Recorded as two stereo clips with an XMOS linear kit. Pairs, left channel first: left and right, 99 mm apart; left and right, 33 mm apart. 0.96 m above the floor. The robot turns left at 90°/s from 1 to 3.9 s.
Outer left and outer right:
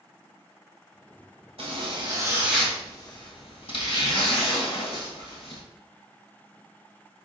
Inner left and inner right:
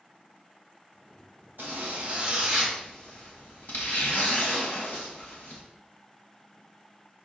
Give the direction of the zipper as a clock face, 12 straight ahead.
3 o'clock.